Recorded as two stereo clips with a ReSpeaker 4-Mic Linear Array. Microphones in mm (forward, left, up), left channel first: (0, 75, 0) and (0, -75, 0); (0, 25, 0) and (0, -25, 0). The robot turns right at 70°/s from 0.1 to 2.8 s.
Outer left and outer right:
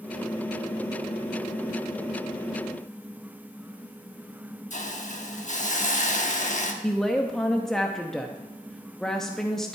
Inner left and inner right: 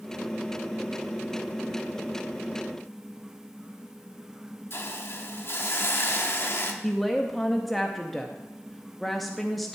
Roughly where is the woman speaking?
Centre.